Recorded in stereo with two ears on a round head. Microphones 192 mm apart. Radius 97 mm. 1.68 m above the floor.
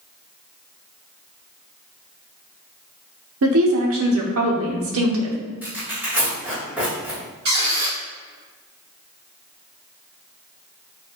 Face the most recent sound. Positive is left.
turn(degrees=-50)  # may be behind; listen again after turning